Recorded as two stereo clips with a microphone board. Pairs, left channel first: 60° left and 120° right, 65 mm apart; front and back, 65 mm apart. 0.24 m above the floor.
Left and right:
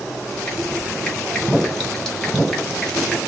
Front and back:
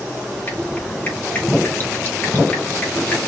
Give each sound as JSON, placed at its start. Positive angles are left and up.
{"t": 0.5, "sound": "dripping", "azimuth_deg": -20, "distance_m": 1.7}